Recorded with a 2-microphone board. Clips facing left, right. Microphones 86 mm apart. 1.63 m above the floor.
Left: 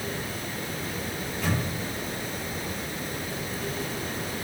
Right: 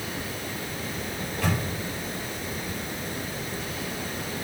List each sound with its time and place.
1.2 s a microwave: 60° right (ahead or behind), 4 m